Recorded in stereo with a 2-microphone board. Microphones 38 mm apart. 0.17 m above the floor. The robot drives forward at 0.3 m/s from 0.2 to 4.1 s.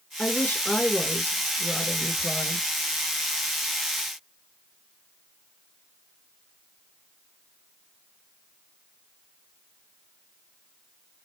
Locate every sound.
0.2 s a woman speaking: 45° left (ahead or behind), 3 m; by 2.7 s 50° left (ahead or behind), 2.5 m